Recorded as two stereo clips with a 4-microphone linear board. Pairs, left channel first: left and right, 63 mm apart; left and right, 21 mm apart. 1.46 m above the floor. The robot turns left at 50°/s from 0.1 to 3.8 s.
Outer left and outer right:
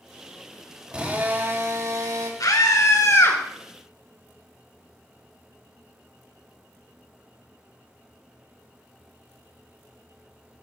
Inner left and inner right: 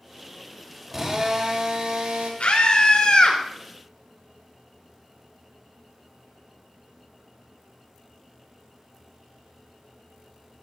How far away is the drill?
About 2.5 m.